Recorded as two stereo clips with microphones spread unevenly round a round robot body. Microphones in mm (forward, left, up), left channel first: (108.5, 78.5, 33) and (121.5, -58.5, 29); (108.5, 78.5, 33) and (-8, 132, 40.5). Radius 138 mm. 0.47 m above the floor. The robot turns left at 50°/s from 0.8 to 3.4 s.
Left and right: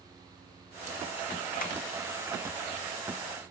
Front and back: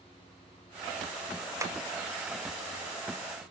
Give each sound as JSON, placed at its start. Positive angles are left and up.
{"t": 1.6, "sound": "tapping", "azimuth_deg": 90, "distance_m": 1.5}